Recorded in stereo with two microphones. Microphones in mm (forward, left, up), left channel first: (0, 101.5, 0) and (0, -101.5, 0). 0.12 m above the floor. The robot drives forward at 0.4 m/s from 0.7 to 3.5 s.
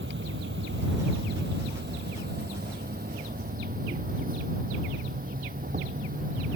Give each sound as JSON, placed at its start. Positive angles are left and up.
{"t": 0.0, "sound": "an insect", "side_deg": -70}